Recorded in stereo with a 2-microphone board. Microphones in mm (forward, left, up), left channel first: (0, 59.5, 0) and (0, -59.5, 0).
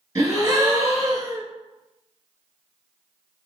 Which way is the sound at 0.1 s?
30° right (ahead or behind).